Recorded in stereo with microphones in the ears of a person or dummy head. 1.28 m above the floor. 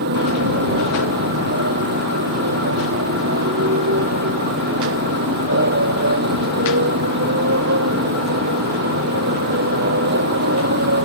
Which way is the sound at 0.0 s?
55° right (ahead or behind).